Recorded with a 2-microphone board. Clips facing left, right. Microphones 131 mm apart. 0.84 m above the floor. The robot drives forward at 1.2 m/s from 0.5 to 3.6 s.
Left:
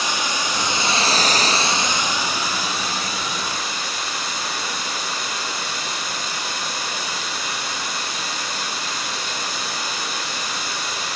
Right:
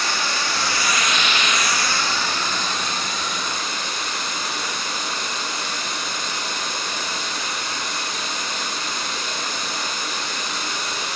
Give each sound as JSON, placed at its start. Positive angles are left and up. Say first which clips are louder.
{"t": 0.0, "sound": "running water", "louder": "left 1 dB", "side_deg": 15, "distance_m": 1.1}